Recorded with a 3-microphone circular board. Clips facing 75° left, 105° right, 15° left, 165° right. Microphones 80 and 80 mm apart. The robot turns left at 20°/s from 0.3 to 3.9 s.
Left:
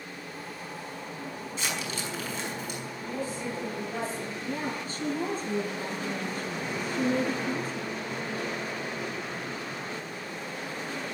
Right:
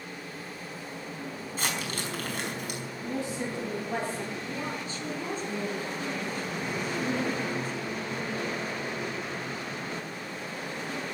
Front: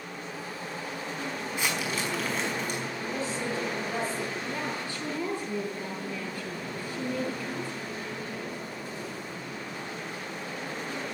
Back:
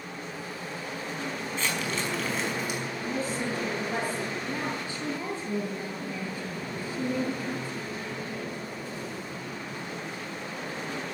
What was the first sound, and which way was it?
Crumpling, 60° right.